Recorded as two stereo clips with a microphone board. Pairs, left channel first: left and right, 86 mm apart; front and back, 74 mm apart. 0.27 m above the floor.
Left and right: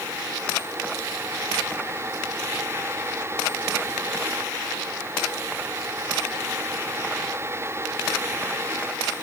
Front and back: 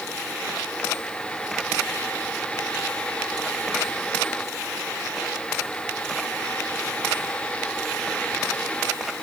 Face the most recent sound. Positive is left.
No sound to turn to.